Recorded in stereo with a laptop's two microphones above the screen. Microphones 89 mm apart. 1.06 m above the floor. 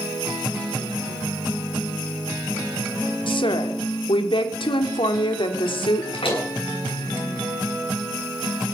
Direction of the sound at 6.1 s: 85° left.